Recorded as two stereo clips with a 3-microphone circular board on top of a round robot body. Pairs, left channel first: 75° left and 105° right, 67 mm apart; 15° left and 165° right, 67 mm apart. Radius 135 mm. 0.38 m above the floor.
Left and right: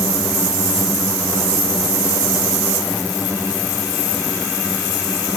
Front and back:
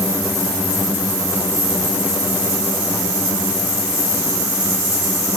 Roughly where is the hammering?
No hammering in this recording.